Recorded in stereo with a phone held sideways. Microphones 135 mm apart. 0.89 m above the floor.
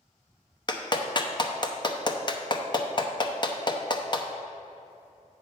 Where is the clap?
35° left (ahead or behind), 0.7 m.